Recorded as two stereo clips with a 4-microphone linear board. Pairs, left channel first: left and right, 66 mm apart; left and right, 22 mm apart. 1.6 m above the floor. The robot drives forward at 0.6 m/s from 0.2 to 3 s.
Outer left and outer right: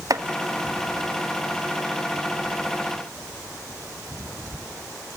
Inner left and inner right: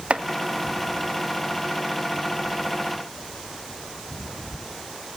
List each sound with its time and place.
0.1 s chopping: 60° right (ahead or behind), 1.5 m